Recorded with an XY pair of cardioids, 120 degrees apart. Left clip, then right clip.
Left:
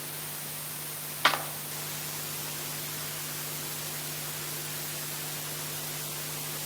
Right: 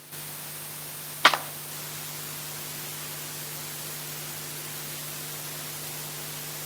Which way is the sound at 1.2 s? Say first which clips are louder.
Right 5 dB; 35° right.